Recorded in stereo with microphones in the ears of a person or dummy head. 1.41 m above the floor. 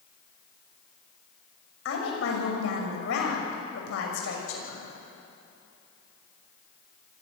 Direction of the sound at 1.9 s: 85° left.